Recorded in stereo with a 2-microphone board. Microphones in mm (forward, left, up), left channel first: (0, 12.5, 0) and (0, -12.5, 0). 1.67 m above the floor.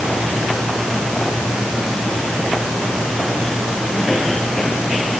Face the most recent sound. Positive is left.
No sound to turn to.